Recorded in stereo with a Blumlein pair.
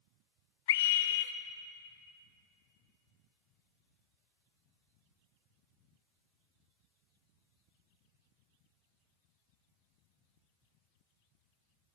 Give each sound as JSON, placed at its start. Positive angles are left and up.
{"t": 0.7, "sound": "a scream", "azimuth_deg": 55, "distance_m": 0.8}